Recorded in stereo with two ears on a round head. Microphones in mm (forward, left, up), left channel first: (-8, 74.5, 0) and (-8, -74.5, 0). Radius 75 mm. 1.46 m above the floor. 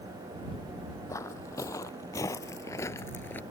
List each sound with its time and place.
1.1 s footsteps: 20° left (ahead or behind); by 3.4 s 10° left (ahead or behind)